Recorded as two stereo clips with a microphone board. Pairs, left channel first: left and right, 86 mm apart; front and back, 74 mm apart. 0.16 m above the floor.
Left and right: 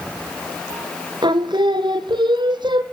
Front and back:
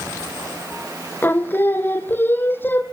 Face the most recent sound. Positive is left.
turn(degrees=-65)